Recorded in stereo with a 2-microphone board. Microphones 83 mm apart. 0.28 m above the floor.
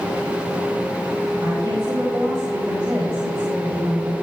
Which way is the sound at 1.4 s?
55° right (ahead or behind).